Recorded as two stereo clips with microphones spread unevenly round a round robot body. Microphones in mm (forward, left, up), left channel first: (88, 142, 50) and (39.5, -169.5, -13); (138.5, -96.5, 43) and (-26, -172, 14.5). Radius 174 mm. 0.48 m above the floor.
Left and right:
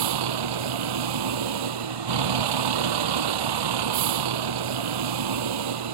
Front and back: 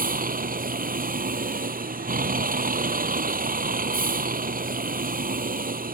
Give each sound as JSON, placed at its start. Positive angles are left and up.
{"t": 0.0, "sound": "a vehicle", "azimuth_deg": -115}